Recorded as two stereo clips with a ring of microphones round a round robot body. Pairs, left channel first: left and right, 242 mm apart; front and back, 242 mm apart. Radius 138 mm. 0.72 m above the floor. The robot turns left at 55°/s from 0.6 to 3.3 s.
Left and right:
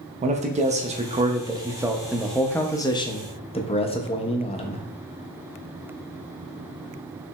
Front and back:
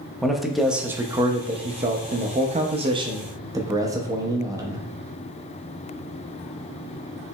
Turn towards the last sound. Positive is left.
turn(degrees=120)